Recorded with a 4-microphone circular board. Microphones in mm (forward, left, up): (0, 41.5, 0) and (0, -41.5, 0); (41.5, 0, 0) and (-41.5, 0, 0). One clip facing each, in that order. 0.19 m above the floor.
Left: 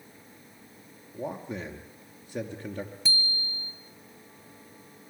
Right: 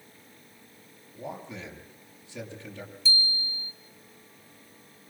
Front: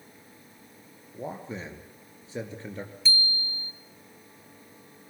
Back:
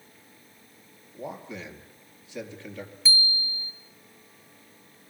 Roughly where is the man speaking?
Ahead left.